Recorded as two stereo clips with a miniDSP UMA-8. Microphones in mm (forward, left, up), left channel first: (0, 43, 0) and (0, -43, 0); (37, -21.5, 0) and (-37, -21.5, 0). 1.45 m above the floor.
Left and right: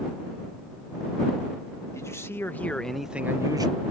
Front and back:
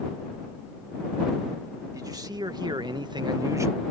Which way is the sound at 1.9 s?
145° left.